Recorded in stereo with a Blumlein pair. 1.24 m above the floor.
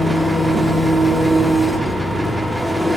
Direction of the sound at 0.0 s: 5° right.